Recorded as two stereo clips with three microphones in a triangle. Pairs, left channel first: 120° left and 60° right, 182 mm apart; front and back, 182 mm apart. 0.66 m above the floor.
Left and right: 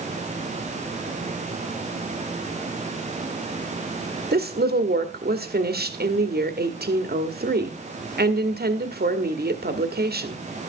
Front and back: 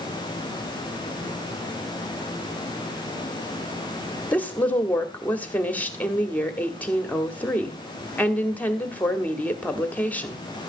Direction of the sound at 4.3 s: 80° right.